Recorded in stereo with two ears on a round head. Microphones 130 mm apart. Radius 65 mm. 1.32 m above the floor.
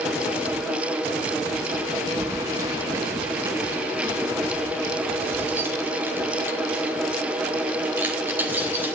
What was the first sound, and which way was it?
Keys jangling, 25° right (ahead or behind).